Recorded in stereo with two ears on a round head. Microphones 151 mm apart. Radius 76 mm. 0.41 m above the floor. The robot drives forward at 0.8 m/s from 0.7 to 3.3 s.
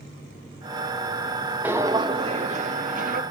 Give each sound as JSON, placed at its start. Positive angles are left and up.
{"t": 1.6, "sound": "footsteps", "side_deg": -10, "distance_m": 0.7}